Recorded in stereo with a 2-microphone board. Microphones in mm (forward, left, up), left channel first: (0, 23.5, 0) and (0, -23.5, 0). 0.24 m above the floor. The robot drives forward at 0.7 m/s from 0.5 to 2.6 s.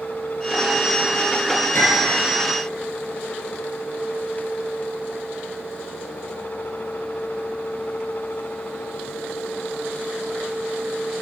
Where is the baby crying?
No baby crying in this recording.